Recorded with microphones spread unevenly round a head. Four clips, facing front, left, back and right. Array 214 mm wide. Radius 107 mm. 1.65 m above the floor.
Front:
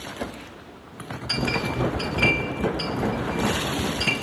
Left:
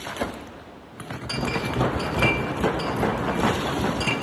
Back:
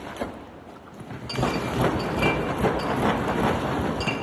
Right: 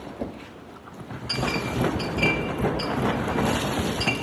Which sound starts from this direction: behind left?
A clink, at 1.3 s.